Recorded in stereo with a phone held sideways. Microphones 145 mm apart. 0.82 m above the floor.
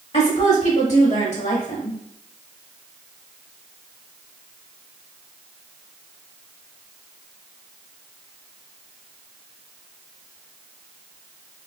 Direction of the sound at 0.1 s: 55° left (ahead or behind).